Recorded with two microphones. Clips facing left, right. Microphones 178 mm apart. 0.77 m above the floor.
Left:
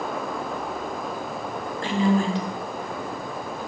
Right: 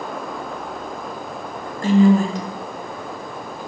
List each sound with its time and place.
1.8 s a woman speaking: 45° right (ahead or behind), 0.6 m